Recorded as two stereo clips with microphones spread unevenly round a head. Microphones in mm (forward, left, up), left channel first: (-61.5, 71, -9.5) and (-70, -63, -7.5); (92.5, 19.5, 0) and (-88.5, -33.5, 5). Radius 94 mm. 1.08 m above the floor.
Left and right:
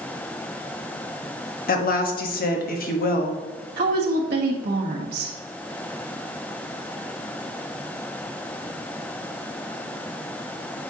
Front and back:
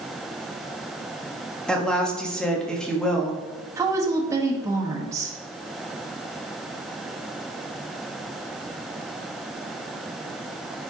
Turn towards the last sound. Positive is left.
turn(degrees=-90)